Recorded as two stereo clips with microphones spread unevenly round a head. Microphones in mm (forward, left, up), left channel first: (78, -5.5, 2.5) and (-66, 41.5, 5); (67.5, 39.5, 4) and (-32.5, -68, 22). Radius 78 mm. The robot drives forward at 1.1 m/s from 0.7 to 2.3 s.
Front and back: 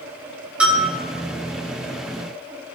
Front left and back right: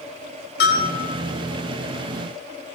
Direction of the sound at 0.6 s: 80° left.